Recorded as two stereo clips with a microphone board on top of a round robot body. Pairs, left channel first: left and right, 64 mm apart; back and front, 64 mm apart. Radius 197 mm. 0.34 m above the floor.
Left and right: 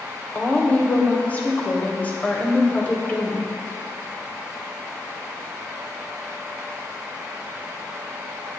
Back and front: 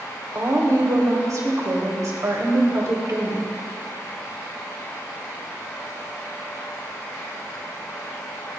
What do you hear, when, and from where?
0.3 s a woman speaking: 25° left, 2.5 m